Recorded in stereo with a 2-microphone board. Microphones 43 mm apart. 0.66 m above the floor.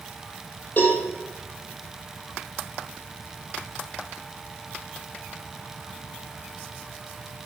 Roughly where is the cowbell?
Left.